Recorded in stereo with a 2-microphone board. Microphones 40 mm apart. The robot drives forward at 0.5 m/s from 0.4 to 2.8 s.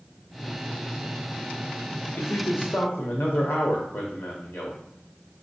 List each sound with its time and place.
2.2 s a man speaking: 75° left (ahead or behind), 0.6 m; by 4.8 s 60° left (ahead or behind), 0.6 m